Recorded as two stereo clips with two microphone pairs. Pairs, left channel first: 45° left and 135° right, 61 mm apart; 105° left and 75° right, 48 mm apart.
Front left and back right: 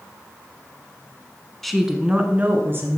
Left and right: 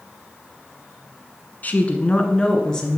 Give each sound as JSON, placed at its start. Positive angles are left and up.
{"t": 1.6, "sound": "a woman speaking", "azimuth_deg": 130, "distance_m": 1.4}